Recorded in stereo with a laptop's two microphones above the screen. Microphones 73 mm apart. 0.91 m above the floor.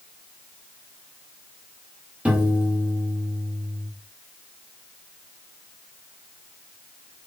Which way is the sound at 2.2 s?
15° right (ahead or behind).